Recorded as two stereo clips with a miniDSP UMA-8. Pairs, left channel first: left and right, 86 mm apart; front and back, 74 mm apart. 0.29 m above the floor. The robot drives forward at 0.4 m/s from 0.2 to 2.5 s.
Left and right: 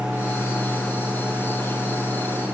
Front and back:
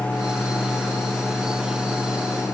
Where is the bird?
I don't hear a bird.